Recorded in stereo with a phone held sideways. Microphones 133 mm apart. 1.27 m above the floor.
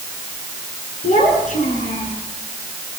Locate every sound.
1.0 s a child speaking: 70° left (ahead or behind), 8 m